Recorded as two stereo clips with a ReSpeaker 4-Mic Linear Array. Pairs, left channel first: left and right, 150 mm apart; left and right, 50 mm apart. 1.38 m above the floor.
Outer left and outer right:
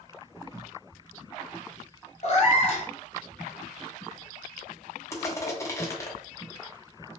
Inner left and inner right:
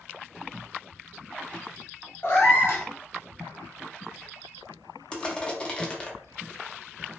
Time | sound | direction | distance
2.2 | a cat meowing | 45° left (ahead or behind) | 0.8 m
5.1 | crushing | 20° left (ahead or behind) | 0.6 m